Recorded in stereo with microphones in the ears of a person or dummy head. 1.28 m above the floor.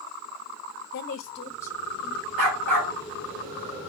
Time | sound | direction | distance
0.9 | a woman speaking | 65° left (ahead or behind) | 0.7 m
2.4 | a dog barking | 65° right (ahead or behind) | 3.5 m